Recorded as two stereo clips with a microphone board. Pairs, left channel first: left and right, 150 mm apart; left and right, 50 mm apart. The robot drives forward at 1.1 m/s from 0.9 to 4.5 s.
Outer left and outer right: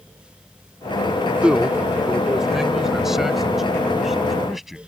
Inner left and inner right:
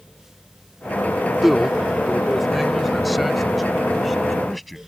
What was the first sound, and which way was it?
A man speaking, 5° right (ahead or behind).